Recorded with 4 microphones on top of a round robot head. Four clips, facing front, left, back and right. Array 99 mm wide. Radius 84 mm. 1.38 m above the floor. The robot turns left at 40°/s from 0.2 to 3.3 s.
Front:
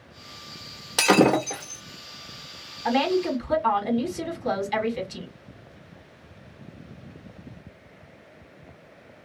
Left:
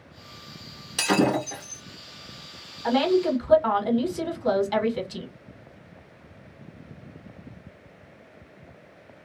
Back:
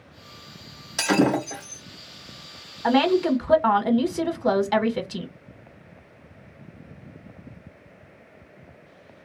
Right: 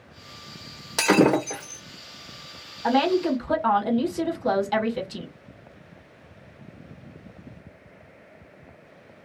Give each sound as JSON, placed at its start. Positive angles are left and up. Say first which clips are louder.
{"t": 1.0, "sound": "breaking glass", "louder": "right 4 dB, front 2 dB", "azimuth_deg": -40, "distance_m": 1.7}
{"t": 2.8, "sound": "a woman speaking", "louder": "even, back 4 dB", "azimuth_deg": -155, "distance_m": 1.3}